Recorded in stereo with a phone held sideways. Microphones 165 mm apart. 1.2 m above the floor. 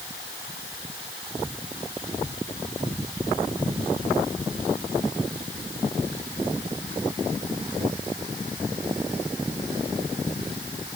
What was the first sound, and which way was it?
Only background noise.